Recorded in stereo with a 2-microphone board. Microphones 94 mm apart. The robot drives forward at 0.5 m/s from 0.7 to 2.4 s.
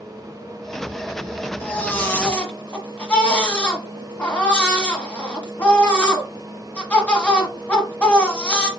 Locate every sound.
1.6 s a baby crying: 20° left (ahead or behind), 0.7 m; by 8.7 s 15° left (ahead or behind), 1.0 m